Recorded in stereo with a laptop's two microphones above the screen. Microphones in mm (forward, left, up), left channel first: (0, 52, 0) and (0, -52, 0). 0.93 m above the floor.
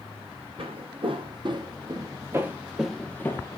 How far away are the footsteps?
About 1.9 m.